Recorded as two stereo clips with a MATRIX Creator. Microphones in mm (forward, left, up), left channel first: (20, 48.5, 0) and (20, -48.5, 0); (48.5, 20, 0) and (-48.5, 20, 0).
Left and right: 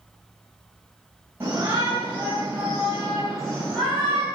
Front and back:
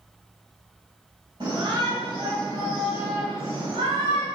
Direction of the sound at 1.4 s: 155° right.